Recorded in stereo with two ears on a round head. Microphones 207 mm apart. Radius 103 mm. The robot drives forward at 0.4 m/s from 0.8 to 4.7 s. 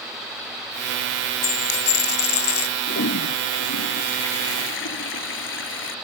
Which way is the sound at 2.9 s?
50° left (ahead or behind).